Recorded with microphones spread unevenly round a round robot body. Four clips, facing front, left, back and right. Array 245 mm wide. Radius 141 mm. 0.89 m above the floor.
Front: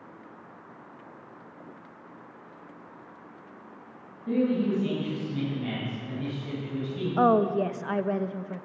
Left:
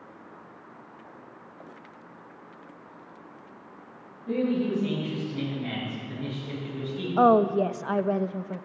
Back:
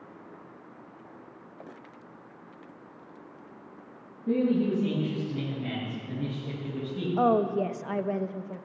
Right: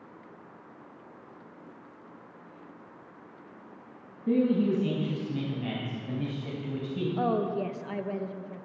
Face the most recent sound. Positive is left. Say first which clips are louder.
# left 10 dB, front 2 dB
turn(degrees=70)